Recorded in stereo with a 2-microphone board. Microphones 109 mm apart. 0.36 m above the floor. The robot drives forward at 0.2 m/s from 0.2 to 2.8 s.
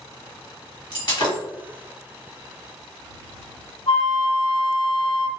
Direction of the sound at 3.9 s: 60° left (ahead or behind).